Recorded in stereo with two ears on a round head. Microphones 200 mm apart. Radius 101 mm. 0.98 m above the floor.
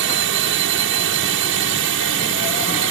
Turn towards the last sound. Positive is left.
turn(degrees=-60)  # may be behind; listen again after turning